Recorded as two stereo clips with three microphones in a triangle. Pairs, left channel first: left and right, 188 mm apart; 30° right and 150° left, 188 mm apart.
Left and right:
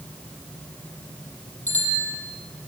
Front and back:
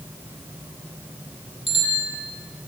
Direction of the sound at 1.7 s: 140° left.